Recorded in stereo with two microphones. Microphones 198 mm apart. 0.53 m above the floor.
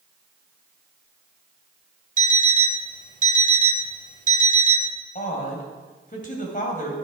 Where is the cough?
I don't hear a cough.